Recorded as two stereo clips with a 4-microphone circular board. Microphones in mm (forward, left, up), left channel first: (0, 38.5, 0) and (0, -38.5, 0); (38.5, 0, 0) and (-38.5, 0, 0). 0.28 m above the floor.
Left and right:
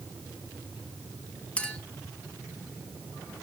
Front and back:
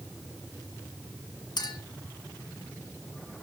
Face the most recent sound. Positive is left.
turn(degrees=15)